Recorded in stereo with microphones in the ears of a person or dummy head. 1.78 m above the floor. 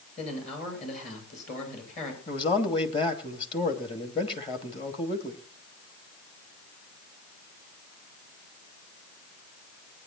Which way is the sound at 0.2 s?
40° left (ahead or behind).